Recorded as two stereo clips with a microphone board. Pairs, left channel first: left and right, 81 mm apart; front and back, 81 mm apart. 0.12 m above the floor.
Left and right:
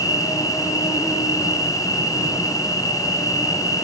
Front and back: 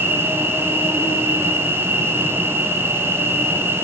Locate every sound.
0.0 s an insect: 105° left, 2.5 m